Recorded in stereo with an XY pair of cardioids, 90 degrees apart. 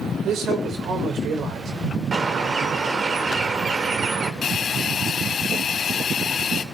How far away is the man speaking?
About 6 m.